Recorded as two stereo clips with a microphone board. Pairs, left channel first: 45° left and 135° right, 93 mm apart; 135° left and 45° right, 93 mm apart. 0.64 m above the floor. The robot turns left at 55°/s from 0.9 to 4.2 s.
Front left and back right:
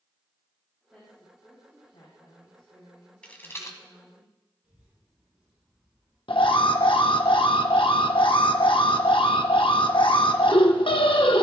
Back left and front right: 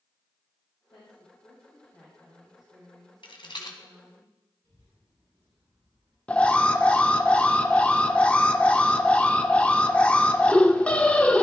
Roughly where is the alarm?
Ahead left.